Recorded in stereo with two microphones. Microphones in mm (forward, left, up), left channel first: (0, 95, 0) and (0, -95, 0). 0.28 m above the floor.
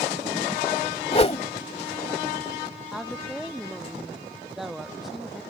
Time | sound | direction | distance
1.1 | a whoosh | 35° left (ahead or behind) | ?
2.9 | a woman speaking | centre (ahead or behind) | ?